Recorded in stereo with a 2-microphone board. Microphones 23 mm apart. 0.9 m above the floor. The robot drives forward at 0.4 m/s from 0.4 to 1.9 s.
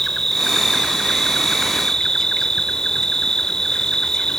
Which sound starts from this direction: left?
An insect, at 0.0 s.